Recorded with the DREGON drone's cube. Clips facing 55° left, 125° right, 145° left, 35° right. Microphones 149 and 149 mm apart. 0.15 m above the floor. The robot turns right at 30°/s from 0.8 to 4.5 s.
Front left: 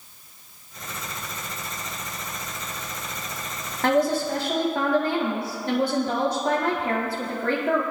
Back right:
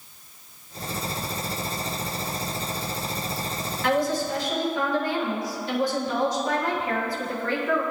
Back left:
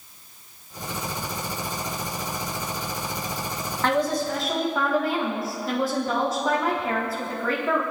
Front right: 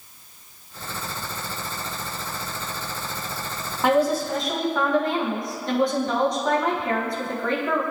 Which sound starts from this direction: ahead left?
A woman speaking, at 3.8 s.